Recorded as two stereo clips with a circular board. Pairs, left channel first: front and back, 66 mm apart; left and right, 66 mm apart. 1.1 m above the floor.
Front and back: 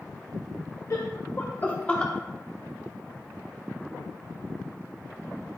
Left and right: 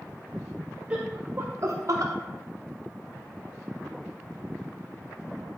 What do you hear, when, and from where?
0.9 s laughter: 20° right, 1.0 m; by 2.1 s 75° right, 1.1 m